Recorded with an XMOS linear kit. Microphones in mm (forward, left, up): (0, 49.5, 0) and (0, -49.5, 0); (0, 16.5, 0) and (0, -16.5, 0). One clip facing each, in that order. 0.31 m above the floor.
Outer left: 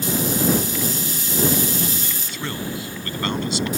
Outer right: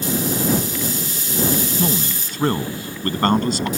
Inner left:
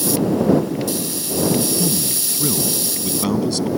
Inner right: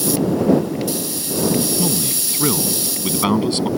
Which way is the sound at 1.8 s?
50° right (ahead or behind).